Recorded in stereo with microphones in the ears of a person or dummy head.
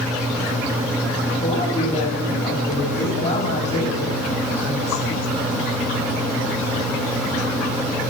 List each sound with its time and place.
1.4 s a man speaking: 30° left (ahead or behind), 8.5 m